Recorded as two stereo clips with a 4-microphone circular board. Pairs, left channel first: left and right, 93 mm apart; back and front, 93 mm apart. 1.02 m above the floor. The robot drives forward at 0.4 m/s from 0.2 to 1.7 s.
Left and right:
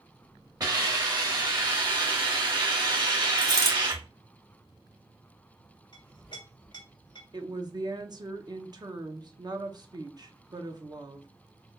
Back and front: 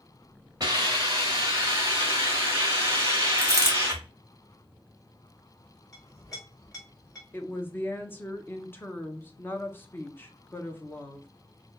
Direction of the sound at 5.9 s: 130° left.